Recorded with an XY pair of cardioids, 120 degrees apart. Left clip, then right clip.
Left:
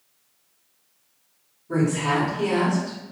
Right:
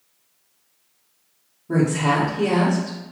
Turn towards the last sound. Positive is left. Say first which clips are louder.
# right 3 dB
turn(degrees=-50)